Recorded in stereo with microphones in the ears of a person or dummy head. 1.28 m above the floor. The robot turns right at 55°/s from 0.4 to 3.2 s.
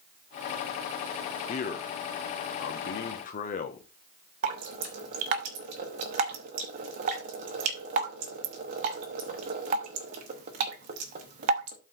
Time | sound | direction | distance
1.5 | a man speaking | 45° left | 1.1 m
4.4 | dripping | 40° right (ahead or behind) | 0.9 m